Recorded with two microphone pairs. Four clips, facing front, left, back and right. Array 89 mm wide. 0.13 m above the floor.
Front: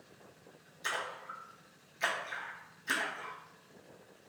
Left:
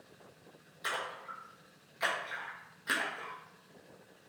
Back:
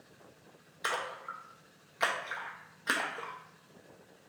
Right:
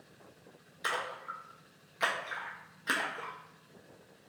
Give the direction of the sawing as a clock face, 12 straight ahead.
I don't hear sawing.